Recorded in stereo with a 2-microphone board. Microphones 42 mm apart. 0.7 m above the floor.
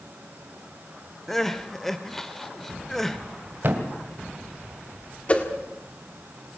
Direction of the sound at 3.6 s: 50° right (ahead or behind).